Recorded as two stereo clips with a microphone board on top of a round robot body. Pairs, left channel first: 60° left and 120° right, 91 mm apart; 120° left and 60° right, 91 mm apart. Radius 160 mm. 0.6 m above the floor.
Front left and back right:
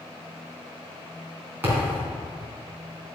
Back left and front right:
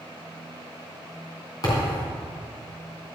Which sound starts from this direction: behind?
A thud, at 1.6 s.